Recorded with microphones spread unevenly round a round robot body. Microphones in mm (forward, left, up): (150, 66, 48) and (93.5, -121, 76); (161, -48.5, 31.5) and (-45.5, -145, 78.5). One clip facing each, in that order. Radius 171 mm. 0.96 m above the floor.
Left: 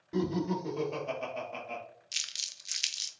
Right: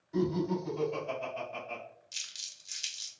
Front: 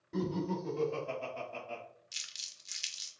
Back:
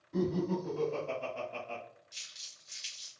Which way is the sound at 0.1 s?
80° left.